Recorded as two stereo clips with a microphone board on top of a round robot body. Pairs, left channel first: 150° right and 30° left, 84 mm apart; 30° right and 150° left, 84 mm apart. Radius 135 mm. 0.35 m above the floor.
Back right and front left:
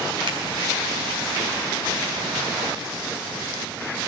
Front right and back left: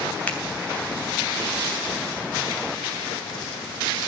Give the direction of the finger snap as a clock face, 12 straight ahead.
11 o'clock.